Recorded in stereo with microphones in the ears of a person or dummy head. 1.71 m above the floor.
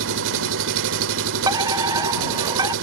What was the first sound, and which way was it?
An engine running, 65° right (ahead or behind).